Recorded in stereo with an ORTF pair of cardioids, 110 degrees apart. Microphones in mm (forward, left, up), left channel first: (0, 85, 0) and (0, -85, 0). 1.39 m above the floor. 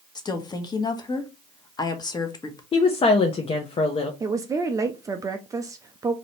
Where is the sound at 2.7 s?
30° left, 0.8 m.